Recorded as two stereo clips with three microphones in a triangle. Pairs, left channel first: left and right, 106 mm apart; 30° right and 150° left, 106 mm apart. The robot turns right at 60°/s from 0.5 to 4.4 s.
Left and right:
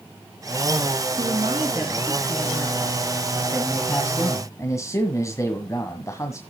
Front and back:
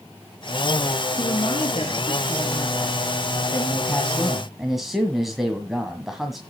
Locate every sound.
1.2 s a woman speaking: 70° right, 3 m; by 3.0 s 40° left, 3 m
3.5 s a man speaking: 10° left, 1.7 m; by 6.4 s 65° left, 1.7 m